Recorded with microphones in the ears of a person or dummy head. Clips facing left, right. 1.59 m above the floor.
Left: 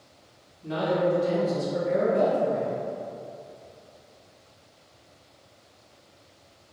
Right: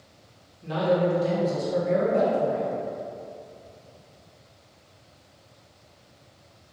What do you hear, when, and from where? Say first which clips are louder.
0.6 s a man speaking: right 2 dB; 70° right (ahead or behind), 1.7 m